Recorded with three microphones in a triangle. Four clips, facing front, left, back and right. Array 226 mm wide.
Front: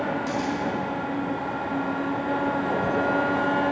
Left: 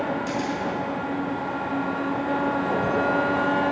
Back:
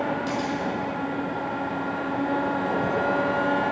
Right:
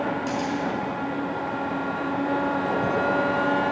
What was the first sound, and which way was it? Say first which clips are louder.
A camera shutter: even, even; 160° right.